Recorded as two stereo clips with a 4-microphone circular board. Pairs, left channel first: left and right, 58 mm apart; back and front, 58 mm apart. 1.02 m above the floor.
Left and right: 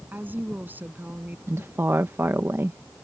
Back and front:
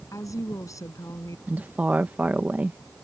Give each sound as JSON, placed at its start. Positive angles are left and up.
{"t": 0.1, "sound": "a woman speaking", "azimuth_deg": -150}
{"t": 1.5, "sound": "a woman speaking", "azimuth_deg": -55}